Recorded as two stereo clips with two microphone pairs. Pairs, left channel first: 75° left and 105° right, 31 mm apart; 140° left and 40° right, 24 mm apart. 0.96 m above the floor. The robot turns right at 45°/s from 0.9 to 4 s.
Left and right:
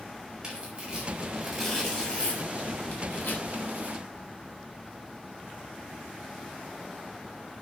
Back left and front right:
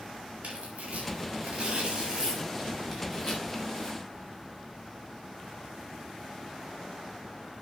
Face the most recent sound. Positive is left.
turn(degrees=100)